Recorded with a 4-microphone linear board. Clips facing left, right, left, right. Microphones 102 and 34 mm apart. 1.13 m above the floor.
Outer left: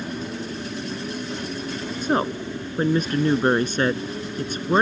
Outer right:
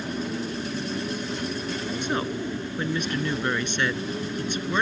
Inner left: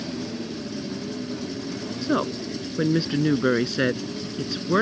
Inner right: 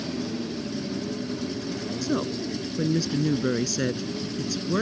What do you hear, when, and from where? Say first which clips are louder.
2.0 s a woman speaking: outer left 7 dB, inner left 4 dB; 35° left (ahead or behind)